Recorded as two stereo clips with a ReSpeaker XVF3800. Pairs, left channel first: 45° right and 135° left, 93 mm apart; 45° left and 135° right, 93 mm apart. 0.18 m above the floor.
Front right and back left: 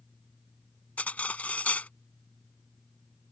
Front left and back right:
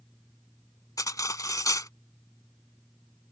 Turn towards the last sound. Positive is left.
turn(degrees=20)